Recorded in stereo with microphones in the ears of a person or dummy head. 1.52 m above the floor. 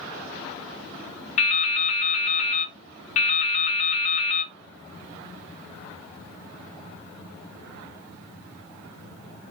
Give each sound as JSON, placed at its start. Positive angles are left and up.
{"t": 1.4, "sound": "dripping", "side_deg": 40, "distance_m": 0.5}